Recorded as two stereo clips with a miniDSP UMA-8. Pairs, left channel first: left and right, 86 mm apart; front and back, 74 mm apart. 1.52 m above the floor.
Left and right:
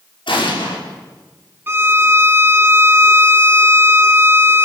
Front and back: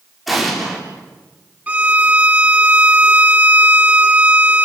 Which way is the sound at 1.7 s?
125° right.